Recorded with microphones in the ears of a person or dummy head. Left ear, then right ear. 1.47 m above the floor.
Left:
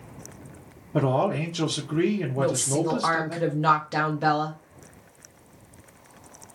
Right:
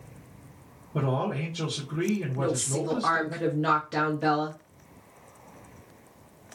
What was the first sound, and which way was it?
A man speaking, 75° left (ahead or behind).